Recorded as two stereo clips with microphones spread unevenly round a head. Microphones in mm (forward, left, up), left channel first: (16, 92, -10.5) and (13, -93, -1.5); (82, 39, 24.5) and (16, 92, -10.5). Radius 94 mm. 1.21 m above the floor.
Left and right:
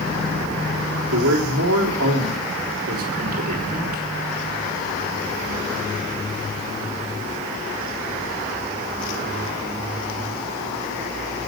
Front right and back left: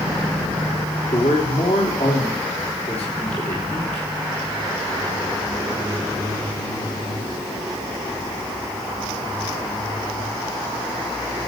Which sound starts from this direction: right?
A man speaking, at 1.1 s.